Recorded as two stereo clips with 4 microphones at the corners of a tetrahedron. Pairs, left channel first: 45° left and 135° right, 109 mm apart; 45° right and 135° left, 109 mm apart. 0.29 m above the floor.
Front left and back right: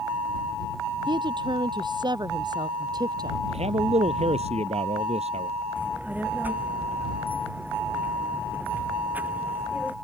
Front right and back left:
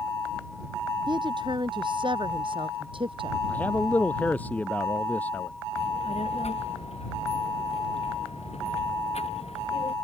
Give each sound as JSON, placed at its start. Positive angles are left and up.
{"t": 1.1, "sound": "a woman speaking", "azimuth_deg": 180}
{"t": 3.5, "sound": "a man speaking", "azimuth_deg": -120}
{"t": 5.8, "sound": "a child speaking", "azimuth_deg": -60}